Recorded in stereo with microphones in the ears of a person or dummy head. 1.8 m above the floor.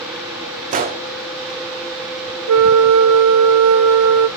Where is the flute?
80° right, 0.6 m.